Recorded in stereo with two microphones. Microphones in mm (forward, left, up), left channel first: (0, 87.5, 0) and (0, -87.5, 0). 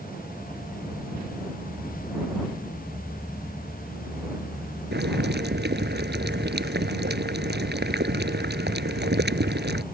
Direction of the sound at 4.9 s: 75° right (ahead or behind).